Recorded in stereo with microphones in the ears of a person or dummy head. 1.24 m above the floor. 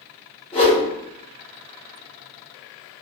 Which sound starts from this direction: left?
A whoosh, at 0.5 s.